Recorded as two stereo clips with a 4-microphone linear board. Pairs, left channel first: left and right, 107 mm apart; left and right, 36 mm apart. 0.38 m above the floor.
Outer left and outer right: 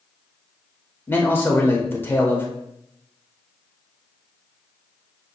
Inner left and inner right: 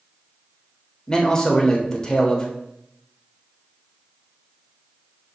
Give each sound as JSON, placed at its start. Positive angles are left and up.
{"t": 1.1, "sound": "a man speaking", "side_deg": 20, "distance_m": 0.9}